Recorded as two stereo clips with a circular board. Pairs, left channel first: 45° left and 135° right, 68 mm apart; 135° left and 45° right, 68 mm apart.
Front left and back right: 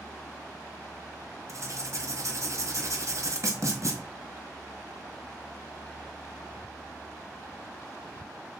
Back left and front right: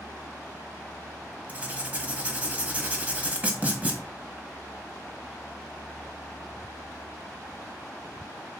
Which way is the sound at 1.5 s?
110° right.